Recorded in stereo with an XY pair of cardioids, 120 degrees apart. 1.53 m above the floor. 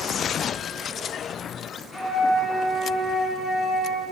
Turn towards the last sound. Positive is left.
turn(degrees=15)